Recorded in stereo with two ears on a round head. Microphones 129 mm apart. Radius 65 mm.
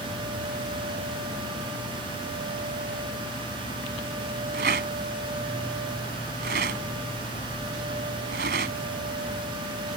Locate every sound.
4.5 s a rattle: 70° right (ahead or behind)